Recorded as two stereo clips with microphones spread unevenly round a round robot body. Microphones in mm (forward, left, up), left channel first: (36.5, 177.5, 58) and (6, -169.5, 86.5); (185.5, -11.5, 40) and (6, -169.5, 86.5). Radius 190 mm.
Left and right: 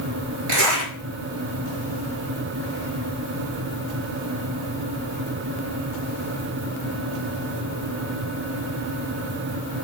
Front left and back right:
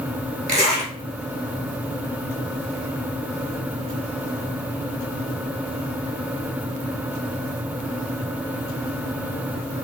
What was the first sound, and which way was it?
A zipper, 75° right.